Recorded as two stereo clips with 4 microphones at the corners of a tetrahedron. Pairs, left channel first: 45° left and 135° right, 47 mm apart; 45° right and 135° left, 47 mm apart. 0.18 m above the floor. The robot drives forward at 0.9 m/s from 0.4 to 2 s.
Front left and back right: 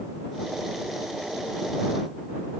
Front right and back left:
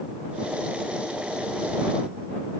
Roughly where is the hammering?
No hammering in this recording.